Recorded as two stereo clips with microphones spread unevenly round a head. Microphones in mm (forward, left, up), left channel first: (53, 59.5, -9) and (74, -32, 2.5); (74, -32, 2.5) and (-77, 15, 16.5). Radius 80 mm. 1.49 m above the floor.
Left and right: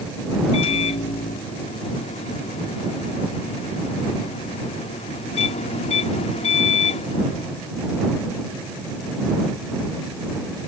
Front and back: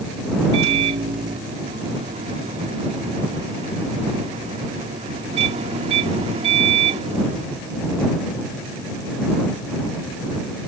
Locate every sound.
0.5 s a microwave: 110° left